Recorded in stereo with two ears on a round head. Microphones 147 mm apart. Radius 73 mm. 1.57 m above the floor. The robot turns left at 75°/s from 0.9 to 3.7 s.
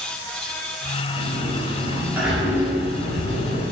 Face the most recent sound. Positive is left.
turn(degrees=80)